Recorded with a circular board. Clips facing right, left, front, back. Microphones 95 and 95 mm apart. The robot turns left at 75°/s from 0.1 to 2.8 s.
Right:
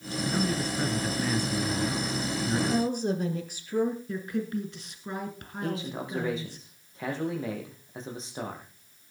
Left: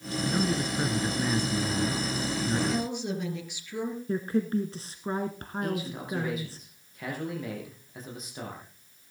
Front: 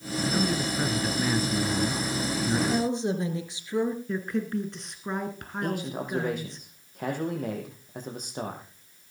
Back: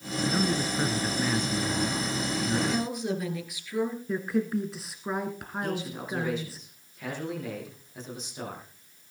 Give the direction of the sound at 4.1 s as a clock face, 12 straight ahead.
9 o'clock.